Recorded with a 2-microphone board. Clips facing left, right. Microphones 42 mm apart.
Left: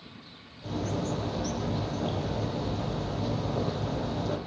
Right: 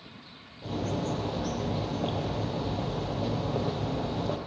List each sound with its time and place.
0.6 s a bird: 30° right (ahead or behind), 3 m